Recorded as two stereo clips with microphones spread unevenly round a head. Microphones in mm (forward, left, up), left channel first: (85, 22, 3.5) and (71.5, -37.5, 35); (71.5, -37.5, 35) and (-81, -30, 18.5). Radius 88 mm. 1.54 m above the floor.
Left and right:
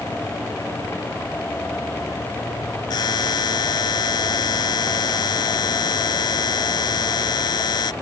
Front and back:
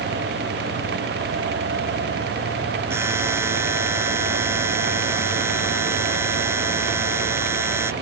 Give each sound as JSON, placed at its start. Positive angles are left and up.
{"t": 2.9, "sound": "a buzzer", "azimuth_deg": 100}